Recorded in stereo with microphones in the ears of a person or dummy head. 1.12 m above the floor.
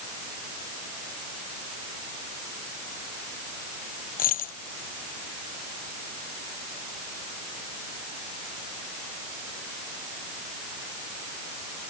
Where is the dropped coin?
45° left (ahead or behind).